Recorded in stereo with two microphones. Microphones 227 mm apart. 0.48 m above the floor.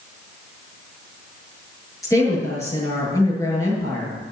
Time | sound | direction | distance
2.0 | a woman speaking | 15° left (ahead or behind) | 7 m